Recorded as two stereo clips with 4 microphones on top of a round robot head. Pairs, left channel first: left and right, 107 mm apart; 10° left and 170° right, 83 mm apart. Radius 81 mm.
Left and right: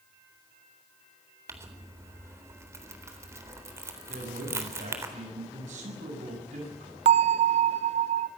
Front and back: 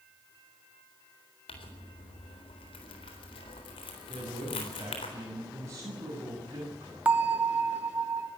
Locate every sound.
1.5 s crumpling: 25° right, 4 m
4.1 s a man speaking: 110° right, 7.5 m
7.0 s a bell: 100° right, 0.7 m